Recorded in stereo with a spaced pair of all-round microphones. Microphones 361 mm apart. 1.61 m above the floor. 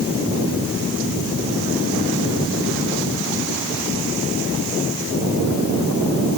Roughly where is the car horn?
I don't hear a car horn.